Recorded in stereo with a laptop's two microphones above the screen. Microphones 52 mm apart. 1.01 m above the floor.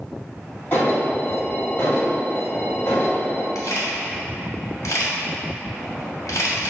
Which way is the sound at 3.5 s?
80° left.